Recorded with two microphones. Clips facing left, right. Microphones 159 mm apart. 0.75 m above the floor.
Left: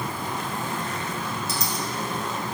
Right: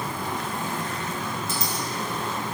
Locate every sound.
1.5 s a dropped coin: 75° left (ahead or behind), 3.5 m